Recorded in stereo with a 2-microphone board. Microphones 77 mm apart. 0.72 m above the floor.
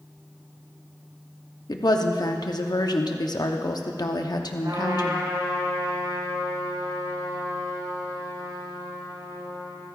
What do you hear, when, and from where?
1.7 s a woman speaking: 60° left (ahead or behind), 0.9 m
4.6 s a trumpet: 70° right (ahead or behind), 4.5 m